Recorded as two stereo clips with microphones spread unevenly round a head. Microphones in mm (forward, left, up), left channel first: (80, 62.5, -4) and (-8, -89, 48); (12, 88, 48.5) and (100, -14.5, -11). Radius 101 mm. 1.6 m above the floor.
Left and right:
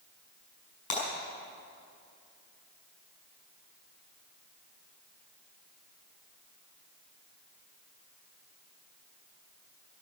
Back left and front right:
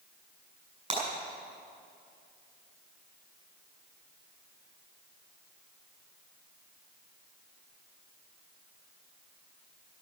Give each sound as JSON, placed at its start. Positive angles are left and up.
{"t": 0.9, "sound": "breaking glass", "azimuth_deg": 10, "distance_m": 6.0}